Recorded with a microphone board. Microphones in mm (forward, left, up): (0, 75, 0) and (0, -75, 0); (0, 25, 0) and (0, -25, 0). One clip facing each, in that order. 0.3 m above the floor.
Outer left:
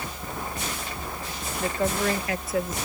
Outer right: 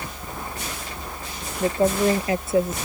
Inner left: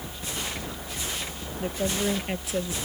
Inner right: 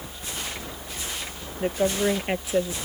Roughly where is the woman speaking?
Right.